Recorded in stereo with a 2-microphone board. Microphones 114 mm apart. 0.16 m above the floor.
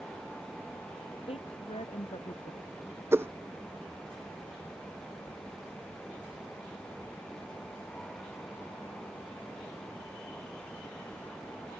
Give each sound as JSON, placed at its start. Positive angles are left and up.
{"t": 1.3, "sound": "a woman speaking", "side_deg": 55}
{"t": 3.1, "sound": "a whoosh", "side_deg": -20}